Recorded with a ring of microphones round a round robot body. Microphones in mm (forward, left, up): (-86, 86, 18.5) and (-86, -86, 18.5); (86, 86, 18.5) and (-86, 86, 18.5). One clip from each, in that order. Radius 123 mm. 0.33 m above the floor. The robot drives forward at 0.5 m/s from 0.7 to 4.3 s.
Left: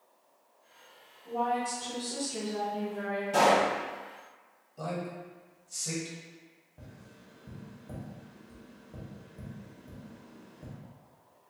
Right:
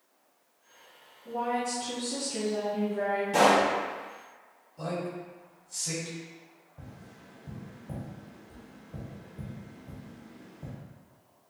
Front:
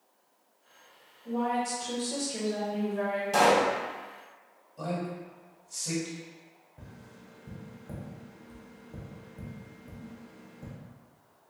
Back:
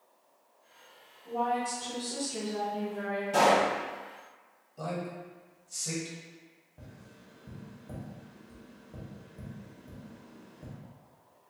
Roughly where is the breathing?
No breathing in this recording.